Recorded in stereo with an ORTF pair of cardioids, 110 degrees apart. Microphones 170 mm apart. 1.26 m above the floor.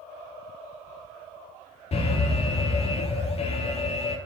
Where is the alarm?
35° left, 3 m.